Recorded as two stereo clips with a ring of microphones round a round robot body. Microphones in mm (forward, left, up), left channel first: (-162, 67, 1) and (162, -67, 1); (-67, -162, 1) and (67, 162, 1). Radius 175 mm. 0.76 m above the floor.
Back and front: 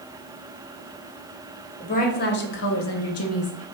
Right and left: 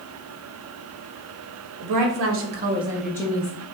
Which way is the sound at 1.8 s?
90° left.